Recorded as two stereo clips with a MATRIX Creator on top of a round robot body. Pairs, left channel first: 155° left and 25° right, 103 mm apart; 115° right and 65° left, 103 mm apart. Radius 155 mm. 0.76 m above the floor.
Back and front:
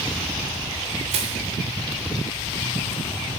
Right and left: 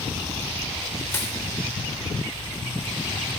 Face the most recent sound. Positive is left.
turn(degrees=-45)